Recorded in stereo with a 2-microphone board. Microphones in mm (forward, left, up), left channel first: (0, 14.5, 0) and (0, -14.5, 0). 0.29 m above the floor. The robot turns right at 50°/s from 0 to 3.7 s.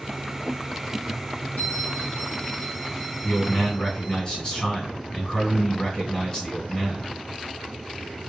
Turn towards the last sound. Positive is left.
turn(degrees=25)  # may be behind; listen again after turning